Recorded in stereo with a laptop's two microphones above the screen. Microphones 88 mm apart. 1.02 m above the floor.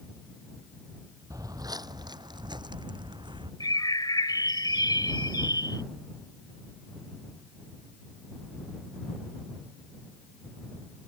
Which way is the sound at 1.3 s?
40° right (ahead or behind).